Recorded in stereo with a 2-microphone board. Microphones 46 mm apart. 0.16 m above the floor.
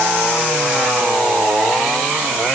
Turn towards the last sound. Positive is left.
No sound to turn to.